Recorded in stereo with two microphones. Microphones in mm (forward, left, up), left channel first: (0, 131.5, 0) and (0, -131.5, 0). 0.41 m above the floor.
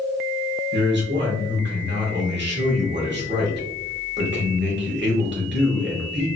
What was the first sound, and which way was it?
A man speaking, 45° right (ahead or behind).